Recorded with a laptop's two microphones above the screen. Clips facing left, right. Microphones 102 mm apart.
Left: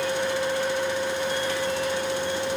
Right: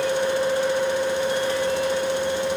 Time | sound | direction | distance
0.0 | a fan | 30° right (ahead or behind) | 1.3 m